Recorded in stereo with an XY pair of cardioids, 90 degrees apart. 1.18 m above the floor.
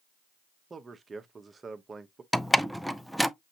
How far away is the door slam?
About 0.5 m.